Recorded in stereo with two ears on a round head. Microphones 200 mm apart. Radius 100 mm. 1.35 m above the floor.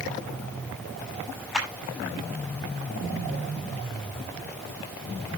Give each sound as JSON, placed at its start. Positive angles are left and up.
{"t": 1.5, "sound": "a clap", "side_deg": -5, "distance_m": 6.0}